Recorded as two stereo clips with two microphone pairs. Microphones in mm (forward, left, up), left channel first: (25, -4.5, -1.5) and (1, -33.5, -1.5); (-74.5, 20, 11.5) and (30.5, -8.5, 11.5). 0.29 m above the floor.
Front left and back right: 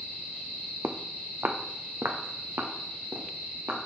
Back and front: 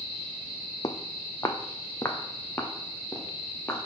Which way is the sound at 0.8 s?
145° right.